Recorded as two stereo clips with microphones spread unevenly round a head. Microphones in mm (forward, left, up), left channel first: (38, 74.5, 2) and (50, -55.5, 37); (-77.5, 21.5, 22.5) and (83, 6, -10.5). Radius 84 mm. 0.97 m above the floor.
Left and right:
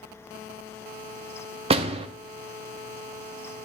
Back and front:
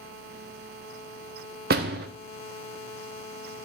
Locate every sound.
1.7 s a door slam: 45° right, 0.7 m